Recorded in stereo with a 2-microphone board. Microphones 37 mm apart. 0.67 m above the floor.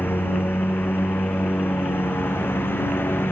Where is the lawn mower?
75° left (ahead or behind); by 3.3 s 85° left.